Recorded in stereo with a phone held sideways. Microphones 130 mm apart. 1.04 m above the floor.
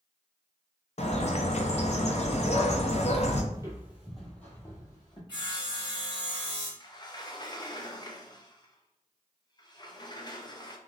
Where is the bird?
55° left (ahead or behind), 0.5 m.